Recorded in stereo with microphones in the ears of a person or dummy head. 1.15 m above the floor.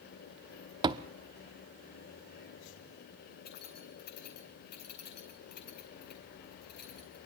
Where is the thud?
20° right (ahead or behind), 0.8 m.